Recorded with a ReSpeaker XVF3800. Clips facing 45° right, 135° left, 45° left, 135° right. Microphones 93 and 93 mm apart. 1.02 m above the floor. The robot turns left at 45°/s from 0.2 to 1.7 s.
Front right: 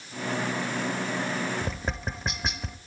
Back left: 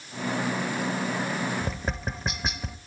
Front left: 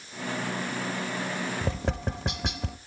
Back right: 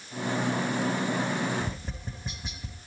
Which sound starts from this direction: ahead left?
Tapping, at 1.6 s.